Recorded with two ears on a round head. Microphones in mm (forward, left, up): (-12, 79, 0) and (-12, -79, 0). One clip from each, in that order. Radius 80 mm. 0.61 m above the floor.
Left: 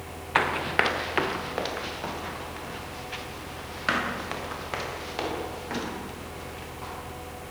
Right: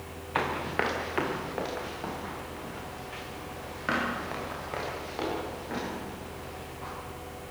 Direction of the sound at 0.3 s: 55° left (ahead or behind).